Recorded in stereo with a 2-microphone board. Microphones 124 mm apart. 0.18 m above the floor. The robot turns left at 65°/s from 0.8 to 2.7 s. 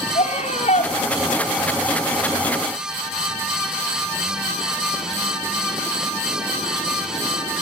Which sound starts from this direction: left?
A scream, at 0.1 s.